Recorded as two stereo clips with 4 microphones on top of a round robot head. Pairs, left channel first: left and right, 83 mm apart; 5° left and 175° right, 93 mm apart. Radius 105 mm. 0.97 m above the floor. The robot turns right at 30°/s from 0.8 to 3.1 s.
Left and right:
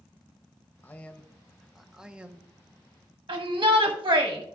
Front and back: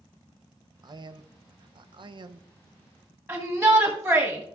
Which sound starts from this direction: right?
A shout, at 3.3 s.